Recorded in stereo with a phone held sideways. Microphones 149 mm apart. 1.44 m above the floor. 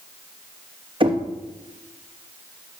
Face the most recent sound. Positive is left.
turn(degrees=-35)  # may be behind; listen again after turning